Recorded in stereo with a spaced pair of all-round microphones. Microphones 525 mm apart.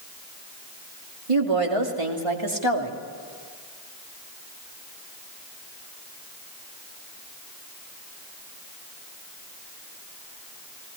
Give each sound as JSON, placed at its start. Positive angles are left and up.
{"t": 1.3, "sound": "a woman speaking", "side_deg": -85, "distance_m": 3.0}